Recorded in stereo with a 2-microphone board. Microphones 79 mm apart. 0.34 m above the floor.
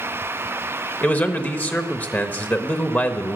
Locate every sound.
1.0 s a man speaking: 20° left (ahead or behind), 0.9 m